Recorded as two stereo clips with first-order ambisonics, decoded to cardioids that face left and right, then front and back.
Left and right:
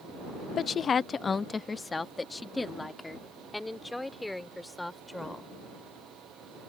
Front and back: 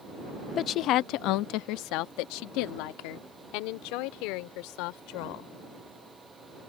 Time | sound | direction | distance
0.6 | a woman speaking | 40° left | ?